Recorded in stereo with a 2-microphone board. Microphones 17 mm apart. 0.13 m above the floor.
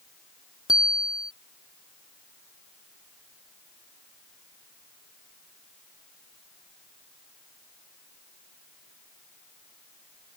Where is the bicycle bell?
50° right (ahead or behind).